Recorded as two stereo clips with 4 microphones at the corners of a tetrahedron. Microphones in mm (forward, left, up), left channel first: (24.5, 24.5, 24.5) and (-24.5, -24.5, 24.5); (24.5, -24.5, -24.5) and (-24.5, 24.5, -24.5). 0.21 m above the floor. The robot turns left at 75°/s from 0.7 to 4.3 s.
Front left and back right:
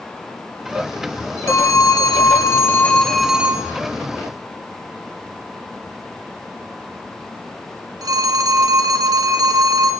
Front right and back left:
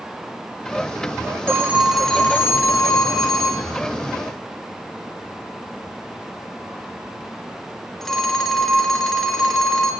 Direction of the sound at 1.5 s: 85° left.